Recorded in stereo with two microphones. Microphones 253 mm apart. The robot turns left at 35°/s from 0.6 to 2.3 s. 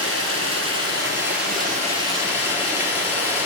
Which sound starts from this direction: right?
Running water, at 0.0 s.